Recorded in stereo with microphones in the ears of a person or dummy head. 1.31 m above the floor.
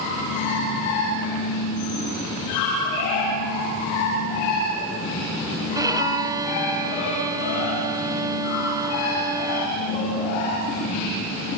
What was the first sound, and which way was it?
A violin, 20° right (ahead or behind).